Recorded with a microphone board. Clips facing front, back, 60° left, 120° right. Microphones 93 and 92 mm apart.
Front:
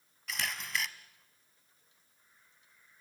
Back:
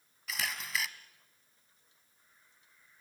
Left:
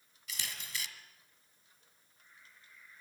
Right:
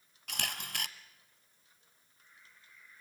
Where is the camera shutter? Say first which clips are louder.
Even, right 4 dB; 90° right, 1.3 m.